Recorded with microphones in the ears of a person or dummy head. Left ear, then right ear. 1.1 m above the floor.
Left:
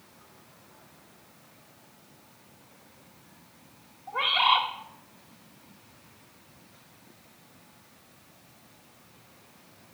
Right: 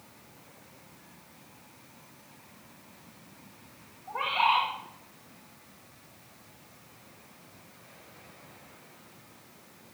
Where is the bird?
35° left (ahead or behind), 1.3 m.